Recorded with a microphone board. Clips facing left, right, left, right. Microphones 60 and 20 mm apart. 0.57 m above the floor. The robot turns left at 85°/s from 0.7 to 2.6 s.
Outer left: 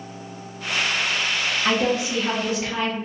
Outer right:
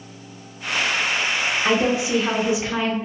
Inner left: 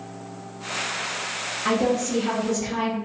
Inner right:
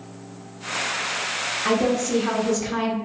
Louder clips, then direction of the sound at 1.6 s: Outer right 2 dB, even; 10° right (ahead or behind).